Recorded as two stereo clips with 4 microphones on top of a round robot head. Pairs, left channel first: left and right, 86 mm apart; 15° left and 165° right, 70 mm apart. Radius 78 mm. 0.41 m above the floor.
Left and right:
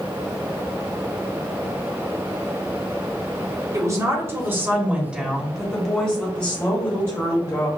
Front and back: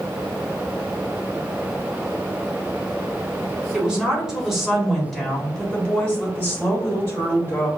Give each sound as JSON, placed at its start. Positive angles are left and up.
{"t": 3.7, "sound": "a woman speaking", "azimuth_deg": -100, "distance_m": 1.6}